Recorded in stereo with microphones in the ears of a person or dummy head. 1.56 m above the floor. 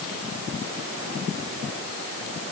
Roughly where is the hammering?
I don't hear hammering.